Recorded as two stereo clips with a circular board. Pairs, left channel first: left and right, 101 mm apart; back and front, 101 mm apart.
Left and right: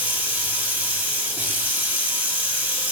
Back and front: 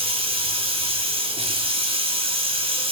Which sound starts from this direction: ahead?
Running water, at 0.0 s.